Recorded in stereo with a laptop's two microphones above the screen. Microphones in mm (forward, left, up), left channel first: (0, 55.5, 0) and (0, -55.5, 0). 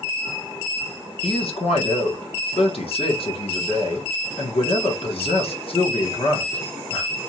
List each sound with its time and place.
1.2 s a man speaking: 60° left (ahead or behind), 1.3 m